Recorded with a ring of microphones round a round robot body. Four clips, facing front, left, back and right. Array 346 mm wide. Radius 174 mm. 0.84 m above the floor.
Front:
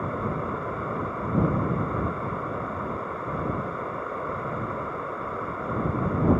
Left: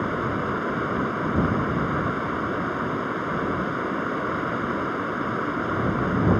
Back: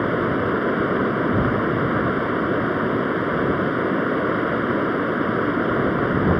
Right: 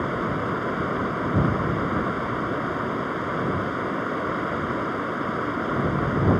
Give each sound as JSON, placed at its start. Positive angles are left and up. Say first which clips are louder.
{"t": 0.0, "sound": "running water", "louder": "even, back 9 dB", "azimuth_deg": 175}